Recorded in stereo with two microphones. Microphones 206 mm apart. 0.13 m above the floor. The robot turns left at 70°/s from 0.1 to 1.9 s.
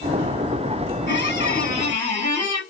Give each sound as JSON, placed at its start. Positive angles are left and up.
{"t": 1.1, "sound": "a squeak", "azimuth_deg": 100, "distance_m": 1.7}